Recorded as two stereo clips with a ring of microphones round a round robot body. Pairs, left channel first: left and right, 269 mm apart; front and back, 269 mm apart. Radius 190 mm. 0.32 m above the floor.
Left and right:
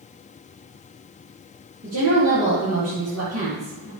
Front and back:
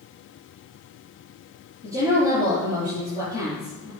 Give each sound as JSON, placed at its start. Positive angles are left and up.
{"t": 1.8, "sound": "a woman speaking", "azimuth_deg": -60, "distance_m": 6.0}